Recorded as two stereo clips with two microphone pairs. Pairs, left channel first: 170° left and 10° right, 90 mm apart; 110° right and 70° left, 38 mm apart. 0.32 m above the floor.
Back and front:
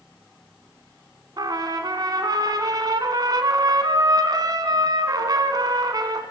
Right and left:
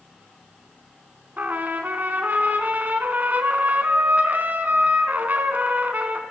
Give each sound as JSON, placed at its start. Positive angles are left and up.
{"t": 1.4, "sound": "a trumpet", "azimuth_deg": 30, "distance_m": 3.0}